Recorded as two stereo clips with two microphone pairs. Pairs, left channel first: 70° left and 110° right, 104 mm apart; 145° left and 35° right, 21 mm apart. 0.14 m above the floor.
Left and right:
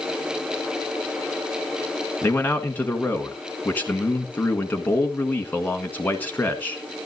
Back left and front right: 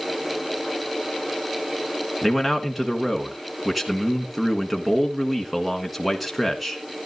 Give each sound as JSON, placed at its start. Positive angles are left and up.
{"t": 2.2, "sound": "a man speaking", "azimuth_deg": 45, "distance_m": 1.3}